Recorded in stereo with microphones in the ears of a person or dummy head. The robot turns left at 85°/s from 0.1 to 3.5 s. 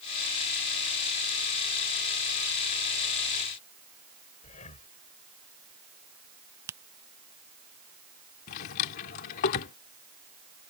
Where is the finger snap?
15° right (ahead or behind).